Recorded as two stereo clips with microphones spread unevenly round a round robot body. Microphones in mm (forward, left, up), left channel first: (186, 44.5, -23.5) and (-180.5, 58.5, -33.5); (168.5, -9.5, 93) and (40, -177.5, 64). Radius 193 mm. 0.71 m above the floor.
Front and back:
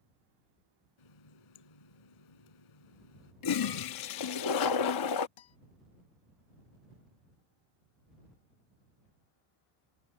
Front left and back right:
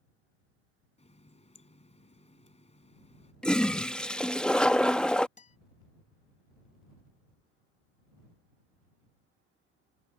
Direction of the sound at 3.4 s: 40° right.